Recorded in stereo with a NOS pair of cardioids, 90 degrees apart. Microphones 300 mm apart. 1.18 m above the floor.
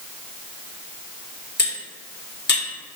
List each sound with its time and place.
1.6 s cutlery clinking: 35° left, 1.5 m